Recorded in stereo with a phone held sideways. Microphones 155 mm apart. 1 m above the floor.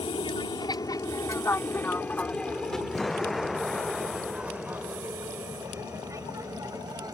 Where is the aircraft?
35° left (ahead or behind); by 7.1 s 20° right (ahead or behind).